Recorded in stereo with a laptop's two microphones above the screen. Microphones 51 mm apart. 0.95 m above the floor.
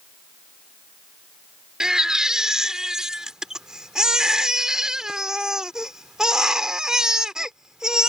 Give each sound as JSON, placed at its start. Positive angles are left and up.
{"t": 1.8, "sound": "a baby crying", "side_deg": -10}